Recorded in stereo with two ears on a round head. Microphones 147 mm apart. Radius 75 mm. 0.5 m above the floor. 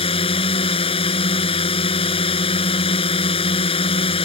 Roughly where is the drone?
Left.